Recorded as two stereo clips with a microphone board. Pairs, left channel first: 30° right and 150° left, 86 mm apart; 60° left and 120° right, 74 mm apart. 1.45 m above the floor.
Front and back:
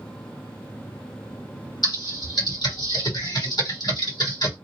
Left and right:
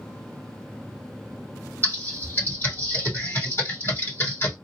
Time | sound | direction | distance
1.8 | typing on a keyboard | straight ahead | 3 m